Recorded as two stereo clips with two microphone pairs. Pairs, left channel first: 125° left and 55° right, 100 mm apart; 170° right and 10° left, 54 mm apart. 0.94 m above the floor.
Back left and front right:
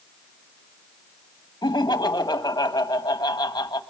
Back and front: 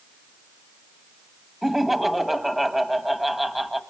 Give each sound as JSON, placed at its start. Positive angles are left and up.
{"t": 1.6, "sound": "laughter", "azimuth_deg": 95, "distance_m": 1.4}